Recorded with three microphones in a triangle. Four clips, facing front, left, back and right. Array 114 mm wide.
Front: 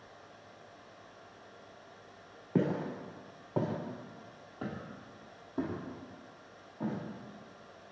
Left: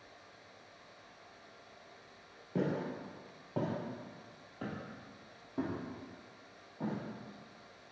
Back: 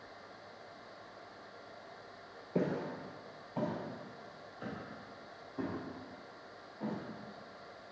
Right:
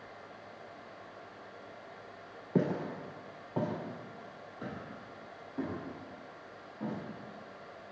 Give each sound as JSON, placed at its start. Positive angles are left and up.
{"t": 2.5, "sound": "footsteps", "azimuth_deg": -45, "distance_m": 1.5}